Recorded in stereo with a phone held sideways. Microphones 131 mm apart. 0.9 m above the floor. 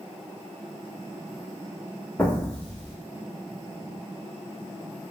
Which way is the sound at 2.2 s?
10° left (ahead or behind).